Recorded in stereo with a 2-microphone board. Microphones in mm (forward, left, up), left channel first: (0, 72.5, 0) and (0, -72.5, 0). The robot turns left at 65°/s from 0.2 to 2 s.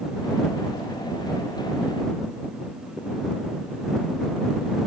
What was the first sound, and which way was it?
Only background noise.